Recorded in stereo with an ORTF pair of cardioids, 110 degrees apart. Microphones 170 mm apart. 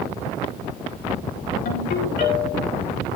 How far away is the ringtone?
About 4 m.